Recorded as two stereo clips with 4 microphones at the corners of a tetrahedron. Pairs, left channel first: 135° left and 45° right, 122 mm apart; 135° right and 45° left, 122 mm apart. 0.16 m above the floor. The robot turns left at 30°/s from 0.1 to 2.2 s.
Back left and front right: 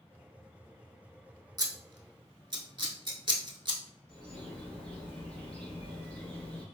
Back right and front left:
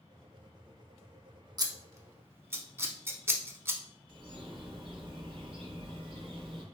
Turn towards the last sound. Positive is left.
turn(degrees=60)